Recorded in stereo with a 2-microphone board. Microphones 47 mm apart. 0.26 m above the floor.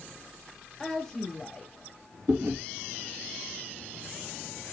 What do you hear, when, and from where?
0.8 s a woman speaking: 10° left (ahead or behind), 1.1 m
2.3 s chewing: 70° right (ahead or behind), 1.8 m